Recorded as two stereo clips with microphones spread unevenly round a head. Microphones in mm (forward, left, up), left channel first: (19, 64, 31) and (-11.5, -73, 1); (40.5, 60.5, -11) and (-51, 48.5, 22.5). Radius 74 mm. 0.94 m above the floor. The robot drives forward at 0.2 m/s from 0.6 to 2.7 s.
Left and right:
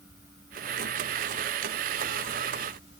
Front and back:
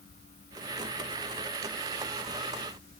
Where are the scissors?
No scissors in this recording.